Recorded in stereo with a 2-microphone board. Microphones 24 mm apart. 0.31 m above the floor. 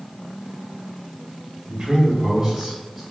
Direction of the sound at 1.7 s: 30° right (ahead or behind).